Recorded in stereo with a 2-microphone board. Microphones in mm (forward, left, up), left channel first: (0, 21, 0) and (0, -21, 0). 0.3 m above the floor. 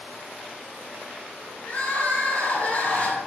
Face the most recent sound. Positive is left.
turn(degrees=35)  # may be behind; listen again after turning